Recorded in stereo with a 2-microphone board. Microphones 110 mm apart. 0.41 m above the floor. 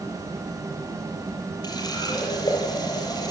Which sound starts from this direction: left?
A running tap, at 1.6 s.